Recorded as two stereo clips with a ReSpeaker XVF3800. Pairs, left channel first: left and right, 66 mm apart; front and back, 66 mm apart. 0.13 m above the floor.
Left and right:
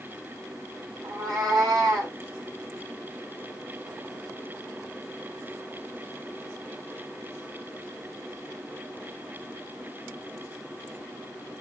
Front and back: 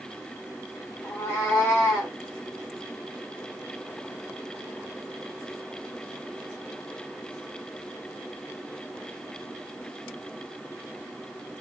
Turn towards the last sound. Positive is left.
turn(degrees=-55)